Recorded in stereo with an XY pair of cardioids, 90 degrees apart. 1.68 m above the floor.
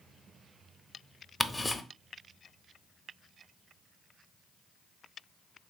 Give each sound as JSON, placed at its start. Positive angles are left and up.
{"t": 1.4, "sound": "ticking", "azimuth_deg": 15, "distance_m": 0.6}